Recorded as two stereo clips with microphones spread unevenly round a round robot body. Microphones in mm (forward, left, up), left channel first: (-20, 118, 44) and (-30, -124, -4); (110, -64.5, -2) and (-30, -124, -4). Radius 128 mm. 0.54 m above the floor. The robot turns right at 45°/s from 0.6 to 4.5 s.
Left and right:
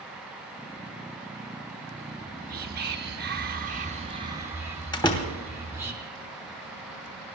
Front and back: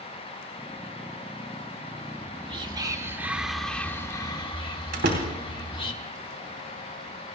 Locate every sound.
2.1 s whispering: 130° right, 1.6 m; by 5.9 s 25° right, 1.6 m
4.9 s a door slam: 165° left, 3 m